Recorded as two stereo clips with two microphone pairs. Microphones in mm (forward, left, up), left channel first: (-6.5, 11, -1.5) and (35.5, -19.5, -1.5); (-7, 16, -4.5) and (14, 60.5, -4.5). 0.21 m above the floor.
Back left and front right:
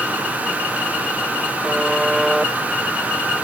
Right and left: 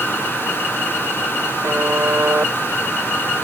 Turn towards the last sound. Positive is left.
turn(degrees=45)